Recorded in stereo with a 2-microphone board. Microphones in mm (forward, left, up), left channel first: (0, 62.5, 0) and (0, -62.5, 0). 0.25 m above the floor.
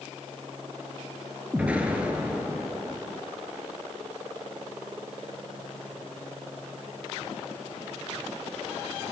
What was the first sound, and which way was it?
An explosion, 10° right (ahead or behind).